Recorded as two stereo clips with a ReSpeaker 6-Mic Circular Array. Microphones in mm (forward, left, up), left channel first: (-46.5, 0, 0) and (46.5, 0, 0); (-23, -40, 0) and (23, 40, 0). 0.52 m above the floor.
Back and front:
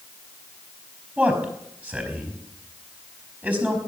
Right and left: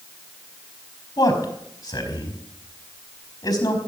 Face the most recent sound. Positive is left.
turn(degrees=-75)